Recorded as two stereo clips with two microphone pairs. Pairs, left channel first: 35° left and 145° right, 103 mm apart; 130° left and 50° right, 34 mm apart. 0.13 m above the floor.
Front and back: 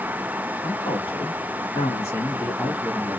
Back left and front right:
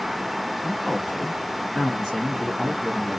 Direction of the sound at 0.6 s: 40° left.